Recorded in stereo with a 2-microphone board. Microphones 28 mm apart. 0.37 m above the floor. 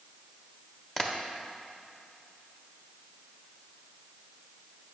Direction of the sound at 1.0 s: 15° left (ahead or behind).